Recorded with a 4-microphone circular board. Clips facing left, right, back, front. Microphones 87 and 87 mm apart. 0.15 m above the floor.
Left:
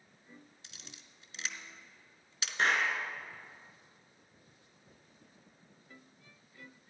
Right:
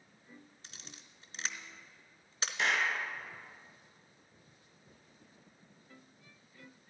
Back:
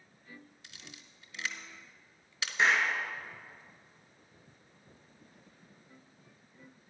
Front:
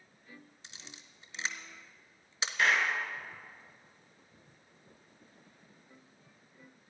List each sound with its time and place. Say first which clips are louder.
0.6 s a camera shutter: right 1 dB, even; 55° right, 0.8 m
2.6 s a clap: left 2 dB, back 1 dB; 120° left, 1.8 m